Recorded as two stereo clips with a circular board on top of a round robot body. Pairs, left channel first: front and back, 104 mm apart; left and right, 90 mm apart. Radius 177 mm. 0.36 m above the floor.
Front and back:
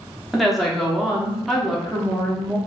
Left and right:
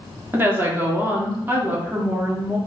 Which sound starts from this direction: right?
A woman speaking, at 0.3 s.